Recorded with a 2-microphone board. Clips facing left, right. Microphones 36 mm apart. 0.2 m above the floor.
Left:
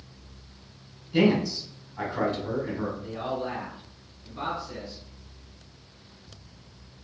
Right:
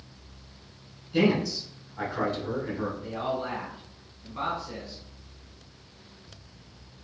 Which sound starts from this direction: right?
A man speaking, at 3.0 s.